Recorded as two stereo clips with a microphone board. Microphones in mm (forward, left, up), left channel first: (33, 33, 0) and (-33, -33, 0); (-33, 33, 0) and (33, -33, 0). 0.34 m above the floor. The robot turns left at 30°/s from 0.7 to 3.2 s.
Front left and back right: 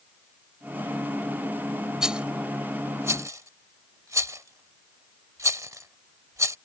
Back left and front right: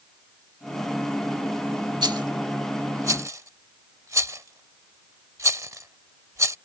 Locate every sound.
2.0 s a rattle: 55° right; by 6.6 s 90° right